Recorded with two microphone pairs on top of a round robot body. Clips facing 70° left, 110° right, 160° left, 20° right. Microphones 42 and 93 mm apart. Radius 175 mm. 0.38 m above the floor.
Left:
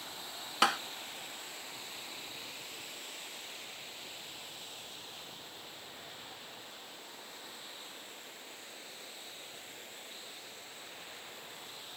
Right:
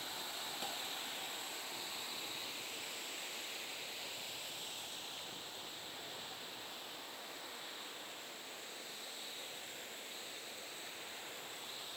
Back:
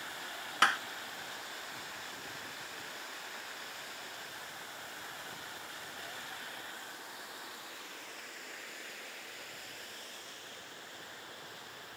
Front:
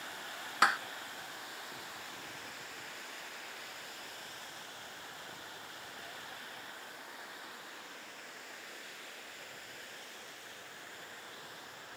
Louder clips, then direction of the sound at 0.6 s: Left 19 dB, even; 65° left.